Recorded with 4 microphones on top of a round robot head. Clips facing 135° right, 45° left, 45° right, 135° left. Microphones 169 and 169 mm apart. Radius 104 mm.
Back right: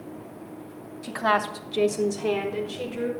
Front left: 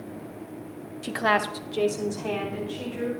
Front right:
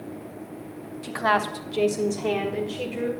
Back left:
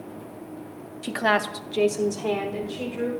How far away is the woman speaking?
About 0.9 m.